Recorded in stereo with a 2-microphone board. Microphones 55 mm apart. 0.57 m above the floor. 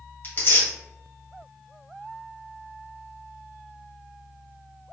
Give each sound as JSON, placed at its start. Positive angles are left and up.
{"t": 0.2, "sound": "tearing paper", "side_deg": 40, "distance_m": 1.7}